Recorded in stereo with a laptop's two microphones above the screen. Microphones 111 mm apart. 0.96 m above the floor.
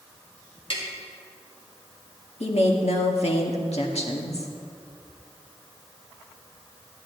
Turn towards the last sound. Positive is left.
turn(degrees=75)  # may be behind; listen again after turning